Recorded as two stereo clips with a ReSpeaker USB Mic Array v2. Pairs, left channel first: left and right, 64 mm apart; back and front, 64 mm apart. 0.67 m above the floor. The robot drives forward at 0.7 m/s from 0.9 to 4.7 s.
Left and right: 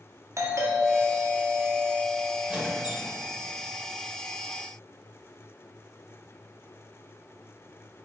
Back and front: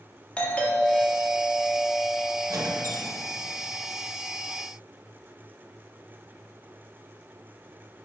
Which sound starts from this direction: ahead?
A squeak, at 2.5 s.